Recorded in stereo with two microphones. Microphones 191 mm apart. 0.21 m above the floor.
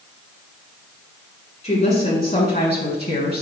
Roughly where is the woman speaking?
Left.